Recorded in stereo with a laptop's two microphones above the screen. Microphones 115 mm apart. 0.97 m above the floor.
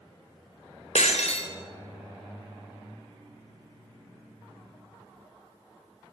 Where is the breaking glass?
80° left, 2.5 m.